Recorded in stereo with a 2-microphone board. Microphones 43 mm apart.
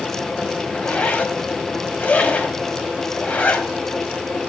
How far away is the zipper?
About 3 m.